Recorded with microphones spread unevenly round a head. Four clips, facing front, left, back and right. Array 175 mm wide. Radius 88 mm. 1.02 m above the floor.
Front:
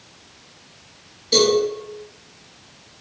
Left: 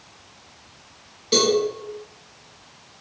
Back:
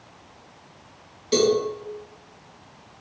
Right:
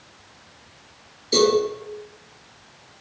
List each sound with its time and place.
1.3 s a cowbell: 100° left, 1.7 m